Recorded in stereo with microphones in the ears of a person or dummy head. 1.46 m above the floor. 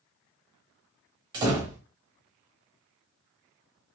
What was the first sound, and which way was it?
A door slam, 25° right (ahead or behind).